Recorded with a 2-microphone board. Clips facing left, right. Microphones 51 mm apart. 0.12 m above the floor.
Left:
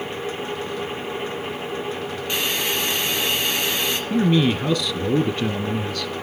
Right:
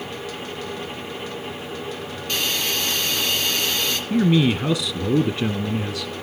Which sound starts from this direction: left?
A hiss, at 2.3 s.